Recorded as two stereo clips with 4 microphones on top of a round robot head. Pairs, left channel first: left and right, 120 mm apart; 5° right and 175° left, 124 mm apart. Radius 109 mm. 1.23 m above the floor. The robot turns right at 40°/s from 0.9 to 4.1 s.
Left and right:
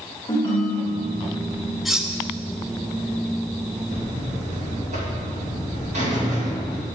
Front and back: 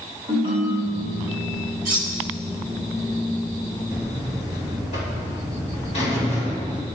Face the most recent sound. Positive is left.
turn(degrees=-50)